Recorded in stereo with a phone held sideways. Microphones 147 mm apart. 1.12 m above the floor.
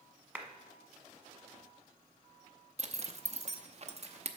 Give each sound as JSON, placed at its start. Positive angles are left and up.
{"t": 0.3, "sound": "a clap", "side_deg": -10, "distance_m": 1.0}
{"t": 2.8, "sound": "a zipper", "side_deg": -45, "distance_m": 0.7}